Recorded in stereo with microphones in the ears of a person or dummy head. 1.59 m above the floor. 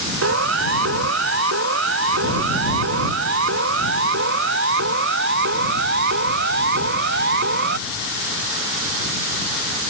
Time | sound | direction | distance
0.2 | a siren | 65° right (ahead or behind) | ?